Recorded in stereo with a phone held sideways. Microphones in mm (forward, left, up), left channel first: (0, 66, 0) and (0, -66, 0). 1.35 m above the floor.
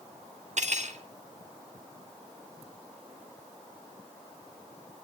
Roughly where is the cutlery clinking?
Right.